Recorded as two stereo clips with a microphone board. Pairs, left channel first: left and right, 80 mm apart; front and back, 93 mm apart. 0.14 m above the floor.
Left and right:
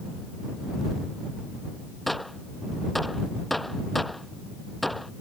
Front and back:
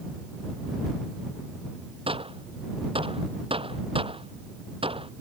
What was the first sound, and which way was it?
A gunshot, straight behind.